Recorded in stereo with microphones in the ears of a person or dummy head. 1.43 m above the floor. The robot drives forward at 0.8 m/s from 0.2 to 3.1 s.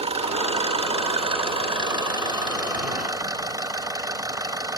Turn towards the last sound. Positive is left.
turn(degrees=-20)  # may be behind; listen again after turning